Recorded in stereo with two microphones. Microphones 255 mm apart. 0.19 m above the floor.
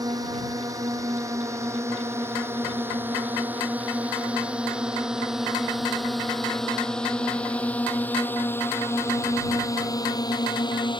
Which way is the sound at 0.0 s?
15° right (ahead or behind).